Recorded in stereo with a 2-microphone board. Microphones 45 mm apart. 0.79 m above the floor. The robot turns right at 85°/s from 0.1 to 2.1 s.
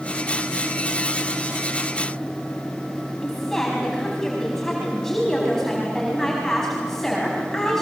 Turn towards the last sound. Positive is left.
turn(degrees=5)  # may be behind; listen again after turning